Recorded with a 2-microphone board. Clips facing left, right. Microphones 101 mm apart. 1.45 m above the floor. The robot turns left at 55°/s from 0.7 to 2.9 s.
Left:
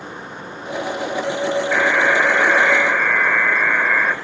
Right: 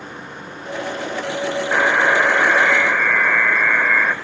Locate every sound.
1.7 s a buzzer: 125° right, 1.3 m; by 4.2 s 170° left, 1.3 m